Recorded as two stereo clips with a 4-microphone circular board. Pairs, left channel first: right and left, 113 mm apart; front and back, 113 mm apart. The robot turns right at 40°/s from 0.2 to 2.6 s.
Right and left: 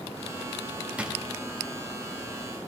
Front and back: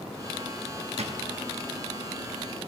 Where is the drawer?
170° left, 1.2 m; by 1.2 s 175° left, 1.2 m.